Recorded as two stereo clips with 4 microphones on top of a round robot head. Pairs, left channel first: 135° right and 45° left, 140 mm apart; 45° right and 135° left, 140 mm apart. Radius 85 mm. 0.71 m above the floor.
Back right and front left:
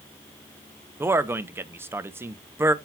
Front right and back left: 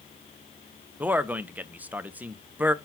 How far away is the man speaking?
About 0.6 m.